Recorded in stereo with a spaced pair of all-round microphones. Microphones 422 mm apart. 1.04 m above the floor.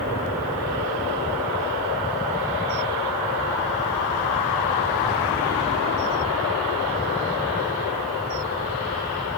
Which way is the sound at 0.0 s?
10° left (ahead or behind).